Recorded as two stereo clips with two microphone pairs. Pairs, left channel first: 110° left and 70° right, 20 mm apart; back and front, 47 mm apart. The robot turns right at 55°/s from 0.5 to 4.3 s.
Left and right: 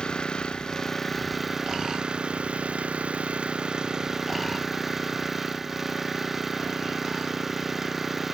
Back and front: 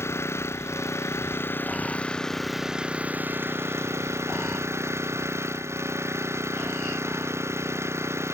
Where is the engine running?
160° left; by 8.3 s 10° left.